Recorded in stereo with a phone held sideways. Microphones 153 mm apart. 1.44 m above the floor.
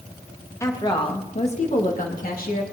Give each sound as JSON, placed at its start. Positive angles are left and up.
{"t": 0.6, "sound": "a woman speaking", "side_deg": 20, "distance_m": 2.0}